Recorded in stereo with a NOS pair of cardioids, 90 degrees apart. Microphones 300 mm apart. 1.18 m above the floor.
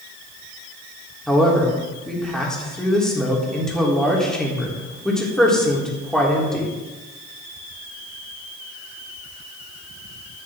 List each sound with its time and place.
1.3 s a man speaking: straight ahead, 3.5 m